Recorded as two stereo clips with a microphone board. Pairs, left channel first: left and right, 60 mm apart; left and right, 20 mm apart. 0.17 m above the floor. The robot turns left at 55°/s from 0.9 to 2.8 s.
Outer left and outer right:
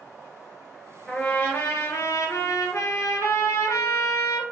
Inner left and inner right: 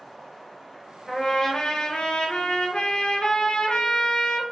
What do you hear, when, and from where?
1.1 s a trumpet: 170° left, 1.1 m; by 4.4 s 75° left, 1.1 m